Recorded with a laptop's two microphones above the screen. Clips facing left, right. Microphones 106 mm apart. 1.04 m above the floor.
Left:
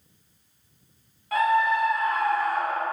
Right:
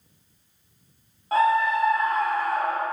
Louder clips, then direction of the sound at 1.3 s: Right 1 dB; 30° right (ahead or behind).